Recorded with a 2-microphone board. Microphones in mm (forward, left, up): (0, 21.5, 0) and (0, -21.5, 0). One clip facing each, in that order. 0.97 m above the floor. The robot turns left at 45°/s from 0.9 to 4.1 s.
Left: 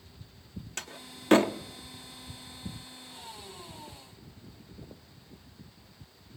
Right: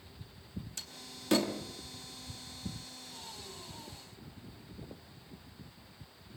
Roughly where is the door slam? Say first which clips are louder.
Left 5 dB; left.